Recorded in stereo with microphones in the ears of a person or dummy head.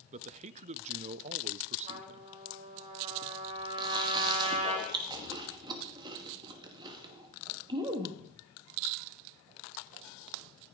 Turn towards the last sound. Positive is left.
turn(degrees=-25)  # may be behind; listen again after turning